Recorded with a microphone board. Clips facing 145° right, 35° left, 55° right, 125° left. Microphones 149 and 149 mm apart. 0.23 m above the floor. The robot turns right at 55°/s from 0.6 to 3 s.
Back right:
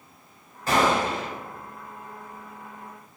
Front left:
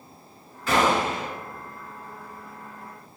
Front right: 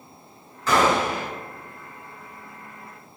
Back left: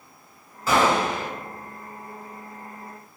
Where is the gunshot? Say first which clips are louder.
Even, even; 160° right, 1.8 m; by 1.3 s 125° right, 1.8 m.